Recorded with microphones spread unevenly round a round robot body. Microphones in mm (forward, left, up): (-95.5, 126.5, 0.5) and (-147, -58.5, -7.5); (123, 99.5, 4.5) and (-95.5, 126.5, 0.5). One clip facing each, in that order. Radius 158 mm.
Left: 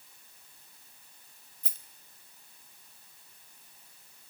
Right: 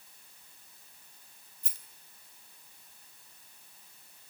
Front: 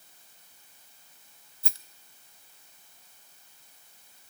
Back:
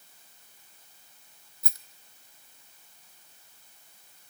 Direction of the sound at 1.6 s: 55° left.